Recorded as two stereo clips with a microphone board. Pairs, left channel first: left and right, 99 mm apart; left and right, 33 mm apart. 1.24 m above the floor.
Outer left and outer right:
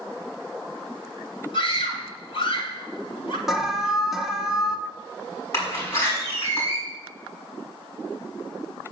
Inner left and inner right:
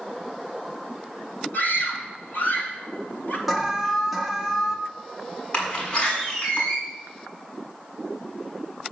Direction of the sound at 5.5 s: 25° left (ahead or behind).